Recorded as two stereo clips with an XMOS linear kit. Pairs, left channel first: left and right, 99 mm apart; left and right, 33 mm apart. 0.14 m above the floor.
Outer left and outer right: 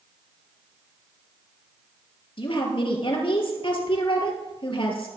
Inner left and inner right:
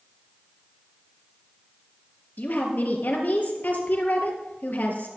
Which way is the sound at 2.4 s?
60° left (ahead or behind).